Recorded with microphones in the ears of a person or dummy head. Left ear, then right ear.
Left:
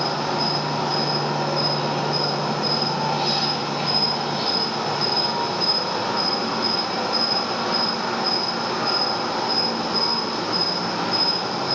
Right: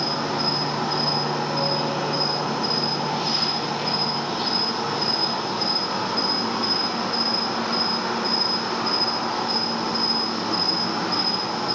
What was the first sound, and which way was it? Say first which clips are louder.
An insect: left 1 dB; 15° left (ahead or behind).